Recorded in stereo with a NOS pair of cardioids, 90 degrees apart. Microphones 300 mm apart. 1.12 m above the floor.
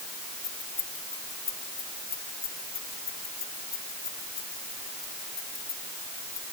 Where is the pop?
I don't hear a pop.